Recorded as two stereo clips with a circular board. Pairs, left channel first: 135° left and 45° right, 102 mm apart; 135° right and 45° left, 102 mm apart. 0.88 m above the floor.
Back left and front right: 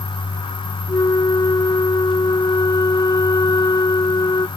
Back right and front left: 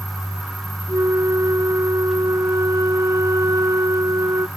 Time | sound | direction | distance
0.9 | a flute | 95° left | ?